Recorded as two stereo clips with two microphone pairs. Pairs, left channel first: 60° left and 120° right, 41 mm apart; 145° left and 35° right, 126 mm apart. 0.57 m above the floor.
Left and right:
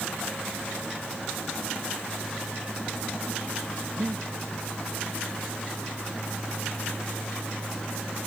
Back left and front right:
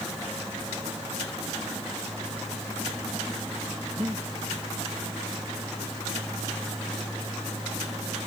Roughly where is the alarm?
No alarm in this recording.